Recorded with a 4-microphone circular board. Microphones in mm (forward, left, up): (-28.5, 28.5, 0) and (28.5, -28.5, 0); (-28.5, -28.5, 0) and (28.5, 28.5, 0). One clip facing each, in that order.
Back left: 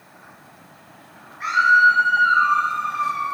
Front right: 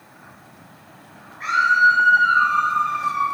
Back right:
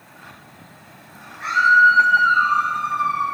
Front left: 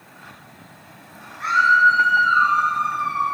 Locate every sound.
1.4 s a scream: 55° left, 3.5 m; by 3.2 s 20° left, 3.5 m